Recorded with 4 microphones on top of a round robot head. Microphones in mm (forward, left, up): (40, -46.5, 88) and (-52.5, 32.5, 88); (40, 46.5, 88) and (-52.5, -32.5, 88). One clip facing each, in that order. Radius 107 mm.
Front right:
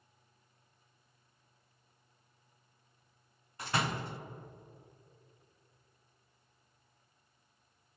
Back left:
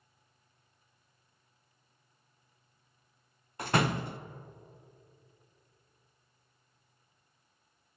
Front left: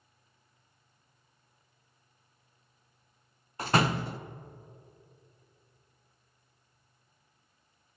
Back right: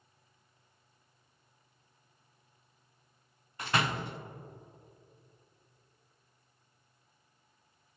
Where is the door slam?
95° left, 0.5 m.